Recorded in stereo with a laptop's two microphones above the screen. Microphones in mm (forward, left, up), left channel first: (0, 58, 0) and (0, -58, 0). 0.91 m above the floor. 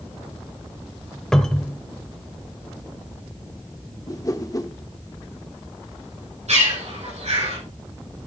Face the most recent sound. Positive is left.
turn(degrees=-70)  # may be behind; listen again after turning